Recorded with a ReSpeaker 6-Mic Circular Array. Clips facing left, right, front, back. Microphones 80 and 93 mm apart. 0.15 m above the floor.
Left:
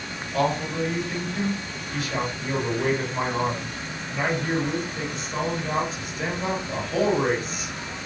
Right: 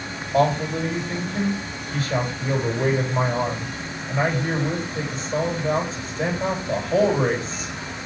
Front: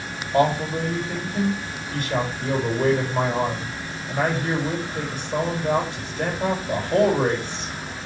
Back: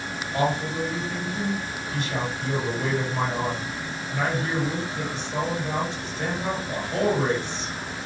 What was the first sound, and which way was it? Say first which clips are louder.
A man speaking: right 4 dB, front 5 dB; 40° right.